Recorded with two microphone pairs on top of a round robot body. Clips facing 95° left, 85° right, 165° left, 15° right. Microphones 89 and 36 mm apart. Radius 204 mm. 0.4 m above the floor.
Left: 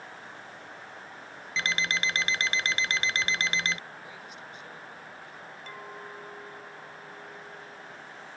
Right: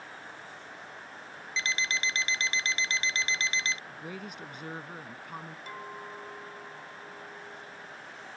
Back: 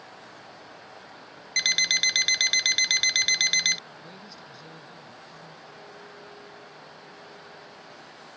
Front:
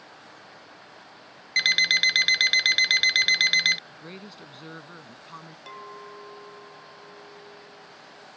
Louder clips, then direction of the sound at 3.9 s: Right 3 dB, front 2 dB; 55° right.